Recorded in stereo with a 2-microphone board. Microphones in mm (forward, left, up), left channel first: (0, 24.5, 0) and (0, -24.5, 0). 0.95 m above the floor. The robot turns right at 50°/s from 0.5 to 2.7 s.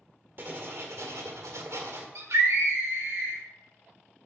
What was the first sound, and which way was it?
Writing, 135° right.